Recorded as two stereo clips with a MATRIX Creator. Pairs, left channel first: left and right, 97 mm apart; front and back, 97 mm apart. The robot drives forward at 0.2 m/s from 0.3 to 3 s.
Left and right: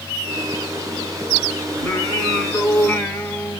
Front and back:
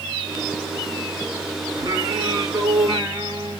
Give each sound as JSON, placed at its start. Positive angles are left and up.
{"t": 1.8, "sound": "singing", "azimuth_deg": 155, "distance_m": 1.8}